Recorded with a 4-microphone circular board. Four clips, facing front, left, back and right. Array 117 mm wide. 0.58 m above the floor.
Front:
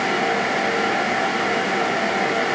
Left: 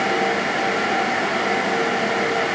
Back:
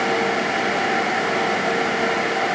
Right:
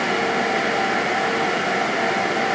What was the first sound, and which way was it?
Only background noise.